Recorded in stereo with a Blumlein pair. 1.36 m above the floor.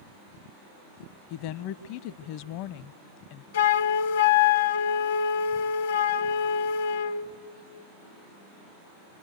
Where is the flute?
60° left, 0.7 m.